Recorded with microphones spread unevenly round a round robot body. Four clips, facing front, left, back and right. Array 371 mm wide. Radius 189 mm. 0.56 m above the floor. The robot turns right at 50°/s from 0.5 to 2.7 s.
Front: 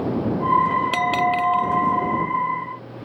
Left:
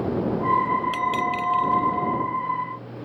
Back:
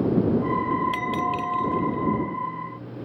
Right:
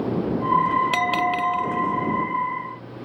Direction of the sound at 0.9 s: 35° right.